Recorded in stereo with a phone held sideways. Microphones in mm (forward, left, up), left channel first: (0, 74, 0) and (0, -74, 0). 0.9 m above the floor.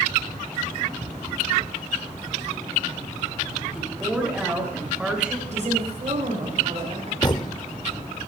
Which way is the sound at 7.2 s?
30° left (ahead or behind).